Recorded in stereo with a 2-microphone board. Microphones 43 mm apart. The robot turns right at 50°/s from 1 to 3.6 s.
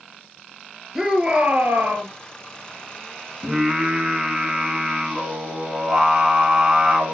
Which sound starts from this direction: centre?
Singing, at 3.4 s.